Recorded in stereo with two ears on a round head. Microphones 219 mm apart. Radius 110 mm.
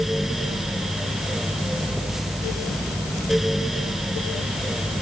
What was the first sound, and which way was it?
Only background noise.